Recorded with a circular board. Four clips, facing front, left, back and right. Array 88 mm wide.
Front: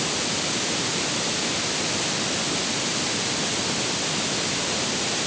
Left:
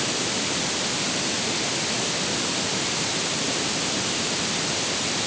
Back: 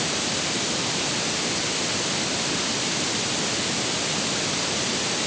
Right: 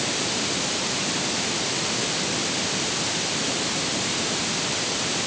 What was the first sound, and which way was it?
Only background noise.